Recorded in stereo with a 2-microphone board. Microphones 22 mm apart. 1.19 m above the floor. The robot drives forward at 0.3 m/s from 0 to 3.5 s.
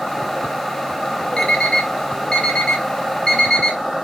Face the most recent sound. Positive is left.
turn(degrees=30)  # may be behind; listen again after turning